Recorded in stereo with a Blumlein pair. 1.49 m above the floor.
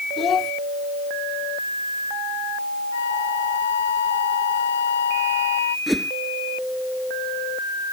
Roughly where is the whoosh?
Ahead.